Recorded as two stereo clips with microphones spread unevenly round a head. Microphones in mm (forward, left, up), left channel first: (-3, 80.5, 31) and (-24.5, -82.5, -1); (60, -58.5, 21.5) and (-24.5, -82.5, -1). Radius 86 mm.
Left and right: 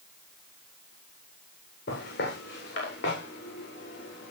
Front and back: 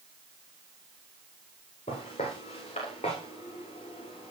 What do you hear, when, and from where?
1.9 s footsteps: 55° left, 9 m; by 4.3 s 60° left, 9.5 m